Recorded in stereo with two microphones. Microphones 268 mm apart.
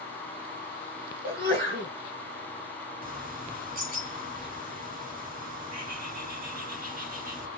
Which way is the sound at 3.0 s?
30° right (ahead or behind).